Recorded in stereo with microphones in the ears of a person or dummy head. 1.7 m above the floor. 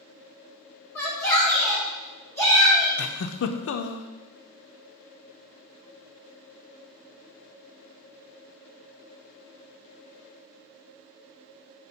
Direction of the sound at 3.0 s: 70° left (ahead or behind).